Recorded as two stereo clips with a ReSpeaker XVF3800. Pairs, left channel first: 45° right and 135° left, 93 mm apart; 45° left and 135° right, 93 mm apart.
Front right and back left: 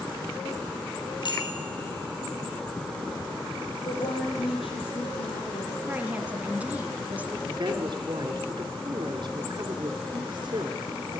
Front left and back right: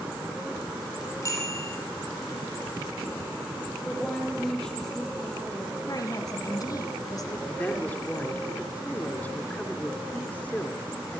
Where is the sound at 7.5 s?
115° left, 3 m.